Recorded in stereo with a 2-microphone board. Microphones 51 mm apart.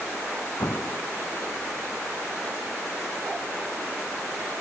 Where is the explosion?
60° left (ahead or behind).